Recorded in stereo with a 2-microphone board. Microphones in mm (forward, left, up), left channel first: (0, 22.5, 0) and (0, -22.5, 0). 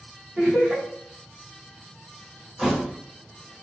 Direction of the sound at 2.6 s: Centre (ahead or behind).